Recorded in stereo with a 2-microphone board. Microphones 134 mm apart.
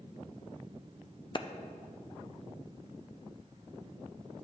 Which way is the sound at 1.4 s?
40° left (ahead or behind).